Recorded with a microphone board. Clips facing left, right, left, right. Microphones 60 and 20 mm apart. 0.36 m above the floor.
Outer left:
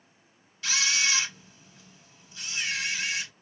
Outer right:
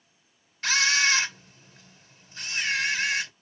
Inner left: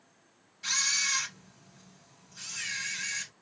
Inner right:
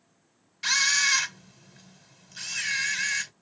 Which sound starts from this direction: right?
A camera shutter, at 0.6 s.